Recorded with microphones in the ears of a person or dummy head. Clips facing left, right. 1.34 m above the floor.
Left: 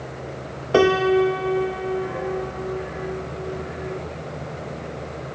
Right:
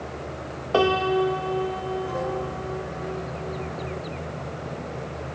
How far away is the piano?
About 0.5 m.